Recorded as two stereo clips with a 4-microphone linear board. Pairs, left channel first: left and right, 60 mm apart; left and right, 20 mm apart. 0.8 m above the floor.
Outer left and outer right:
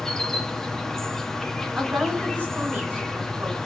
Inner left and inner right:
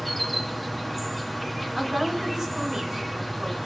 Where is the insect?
5° left (ahead or behind), 1.2 m.